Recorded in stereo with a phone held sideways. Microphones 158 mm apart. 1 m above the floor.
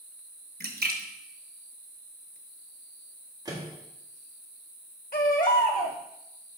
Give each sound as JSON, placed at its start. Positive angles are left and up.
{"t": 0.6, "sound": "a splash", "side_deg": -85, "distance_m": 0.9}
{"t": 3.5, "sound": "a microwave", "side_deg": -25, "distance_m": 1.7}
{"t": 5.1, "sound": "a baby crying", "side_deg": 70, "distance_m": 1.4}